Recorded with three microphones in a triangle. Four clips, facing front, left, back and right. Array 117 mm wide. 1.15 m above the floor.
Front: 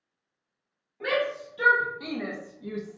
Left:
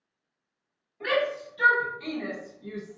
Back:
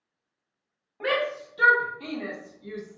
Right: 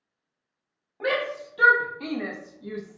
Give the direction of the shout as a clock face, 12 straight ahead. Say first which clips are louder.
Even, even; 4 o'clock.